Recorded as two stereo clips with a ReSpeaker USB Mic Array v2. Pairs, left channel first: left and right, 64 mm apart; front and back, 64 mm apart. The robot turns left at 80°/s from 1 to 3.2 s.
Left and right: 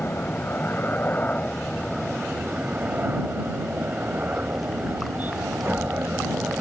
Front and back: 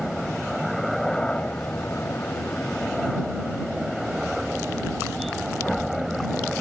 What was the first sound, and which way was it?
A helicopter, 80° left.